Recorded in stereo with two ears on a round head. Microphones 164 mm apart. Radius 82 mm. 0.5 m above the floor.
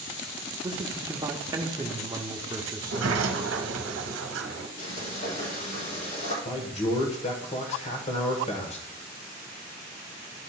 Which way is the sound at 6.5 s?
35° left (ahead or behind).